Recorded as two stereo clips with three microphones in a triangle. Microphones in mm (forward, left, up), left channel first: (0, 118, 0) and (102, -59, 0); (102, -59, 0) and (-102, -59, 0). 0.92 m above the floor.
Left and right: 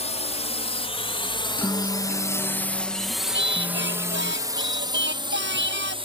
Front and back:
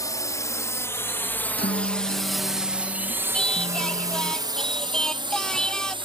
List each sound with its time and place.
0.0 s a drone: 70° left; by 6.0 s 120° right
1.6 s a guitar: 40° left
3.3 s singing: 85° right